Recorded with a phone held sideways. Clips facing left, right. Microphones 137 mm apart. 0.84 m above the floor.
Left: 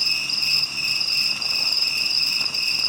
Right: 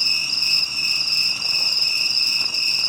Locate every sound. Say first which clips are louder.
0.0 s an insect: even; 55° left (ahead or behind), 3 m